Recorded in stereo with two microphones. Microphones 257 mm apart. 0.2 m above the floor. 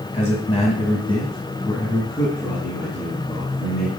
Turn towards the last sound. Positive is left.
turn(degrees=0)  # may be behind; listen again after turning